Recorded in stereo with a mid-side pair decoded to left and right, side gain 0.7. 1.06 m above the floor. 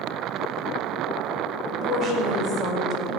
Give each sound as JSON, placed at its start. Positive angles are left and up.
{"t": 1.7, "sound": "a woman speaking", "azimuth_deg": 25, "distance_m": 5.0}